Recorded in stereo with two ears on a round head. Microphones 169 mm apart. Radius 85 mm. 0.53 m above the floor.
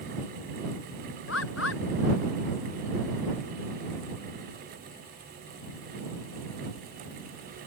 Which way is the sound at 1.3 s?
75° left (ahead or behind).